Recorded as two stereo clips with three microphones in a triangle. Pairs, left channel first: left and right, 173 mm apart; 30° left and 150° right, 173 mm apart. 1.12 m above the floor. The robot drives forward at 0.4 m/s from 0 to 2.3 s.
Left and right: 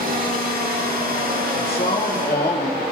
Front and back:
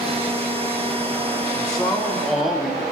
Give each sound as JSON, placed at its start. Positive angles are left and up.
{"t": 1.6, "sound": "a man speaking", "azimuth_deg": 115, "distance_m": 1.9}